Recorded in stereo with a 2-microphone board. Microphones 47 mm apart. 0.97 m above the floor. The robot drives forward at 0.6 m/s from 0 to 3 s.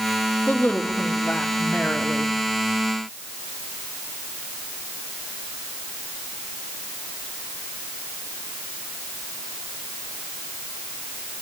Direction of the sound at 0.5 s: 25° left (ahead or behind).